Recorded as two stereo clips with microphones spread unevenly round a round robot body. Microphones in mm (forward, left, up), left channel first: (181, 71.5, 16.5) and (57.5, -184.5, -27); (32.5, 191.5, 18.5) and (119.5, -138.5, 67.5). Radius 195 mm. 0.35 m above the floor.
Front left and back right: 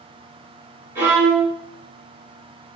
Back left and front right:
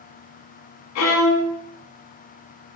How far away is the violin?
About 0.5 m.